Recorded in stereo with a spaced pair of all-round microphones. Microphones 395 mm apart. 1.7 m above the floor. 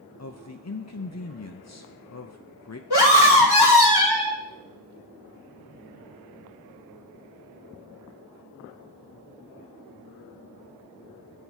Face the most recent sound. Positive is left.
turn(degrees=85)